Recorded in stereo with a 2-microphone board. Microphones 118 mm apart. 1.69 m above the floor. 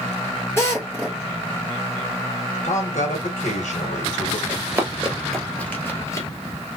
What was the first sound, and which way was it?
A drill, 20° left (ahead or behind).